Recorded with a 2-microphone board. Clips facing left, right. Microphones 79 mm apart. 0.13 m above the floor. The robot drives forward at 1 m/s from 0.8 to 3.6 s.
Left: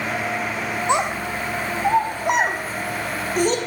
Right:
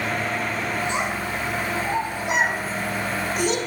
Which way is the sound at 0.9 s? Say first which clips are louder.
Left 4 dB; 70° left (ahead or behind).